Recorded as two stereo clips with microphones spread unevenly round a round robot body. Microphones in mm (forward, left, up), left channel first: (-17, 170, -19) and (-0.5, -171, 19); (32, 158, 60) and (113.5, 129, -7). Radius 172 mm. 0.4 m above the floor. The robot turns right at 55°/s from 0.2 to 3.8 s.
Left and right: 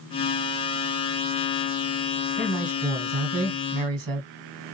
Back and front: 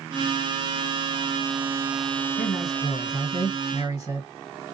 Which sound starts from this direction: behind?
A man speaking, at 2.4 s.